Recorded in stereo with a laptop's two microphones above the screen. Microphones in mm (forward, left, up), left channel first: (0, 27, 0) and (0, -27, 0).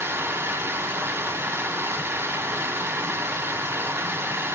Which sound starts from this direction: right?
Running water, at 0.0 s.